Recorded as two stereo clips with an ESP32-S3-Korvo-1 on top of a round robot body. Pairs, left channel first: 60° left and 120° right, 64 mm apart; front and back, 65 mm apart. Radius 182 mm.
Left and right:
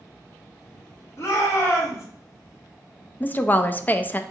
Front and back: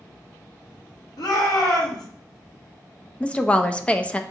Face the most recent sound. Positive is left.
turn(degrees=50)